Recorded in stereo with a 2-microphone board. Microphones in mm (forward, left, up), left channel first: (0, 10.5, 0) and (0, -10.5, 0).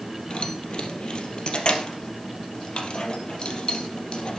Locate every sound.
0.3 s keys jangling: 50° left (ahead or behind), 3 m